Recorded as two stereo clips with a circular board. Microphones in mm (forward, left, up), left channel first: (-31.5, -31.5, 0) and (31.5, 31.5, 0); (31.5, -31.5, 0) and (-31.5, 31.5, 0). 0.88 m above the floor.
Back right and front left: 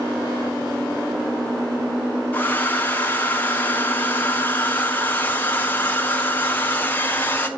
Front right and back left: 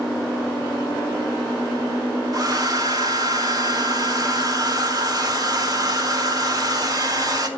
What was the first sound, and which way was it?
A hair dryer, 160° left.